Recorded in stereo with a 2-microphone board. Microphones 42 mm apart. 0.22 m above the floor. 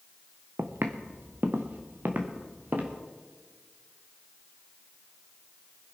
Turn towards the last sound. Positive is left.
turn(degrees=-45)  # may be behind; listen again after turning